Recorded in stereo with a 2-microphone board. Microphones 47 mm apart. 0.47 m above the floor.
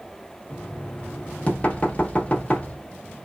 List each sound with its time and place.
0.5 s knocking: 30° left (ahead or behind), 0.9 m